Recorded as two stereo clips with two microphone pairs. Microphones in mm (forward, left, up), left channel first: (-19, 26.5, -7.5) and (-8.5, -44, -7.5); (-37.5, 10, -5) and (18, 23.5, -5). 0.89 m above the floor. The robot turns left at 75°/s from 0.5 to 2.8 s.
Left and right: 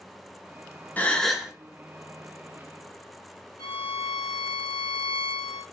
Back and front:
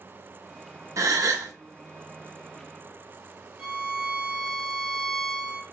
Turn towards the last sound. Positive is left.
turn(degrees=85)